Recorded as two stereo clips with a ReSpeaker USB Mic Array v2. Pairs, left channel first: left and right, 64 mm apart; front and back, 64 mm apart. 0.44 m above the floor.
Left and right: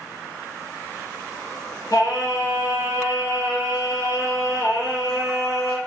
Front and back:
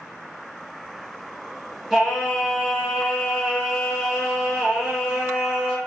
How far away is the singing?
About 2.5 m.